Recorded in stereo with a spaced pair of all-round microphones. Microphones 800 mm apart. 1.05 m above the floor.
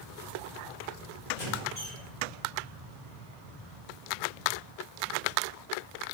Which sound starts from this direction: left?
A squeak, at 1.3 s.